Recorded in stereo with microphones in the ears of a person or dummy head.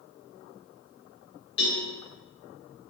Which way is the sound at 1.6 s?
70° left (ahead or behind).